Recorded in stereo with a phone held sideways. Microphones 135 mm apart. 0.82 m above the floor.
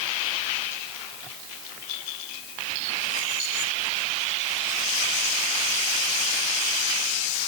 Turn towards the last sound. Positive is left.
No sound to turn to.